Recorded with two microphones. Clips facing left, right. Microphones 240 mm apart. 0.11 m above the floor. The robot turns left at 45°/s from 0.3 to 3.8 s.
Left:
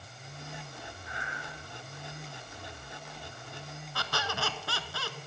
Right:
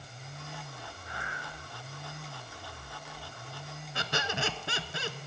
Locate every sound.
1.0 s breathing: 40° right (ahead or behind), 5 m; by 1.4 s 55° right (ahead or behind), 5 m
4.0 s a squeak: 20° right (ahead or behind), 0.7 m